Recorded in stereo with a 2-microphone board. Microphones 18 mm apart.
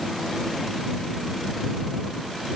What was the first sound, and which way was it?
Only background noise.